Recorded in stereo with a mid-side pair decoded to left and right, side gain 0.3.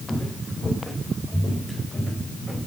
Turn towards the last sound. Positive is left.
turn(degrees=0)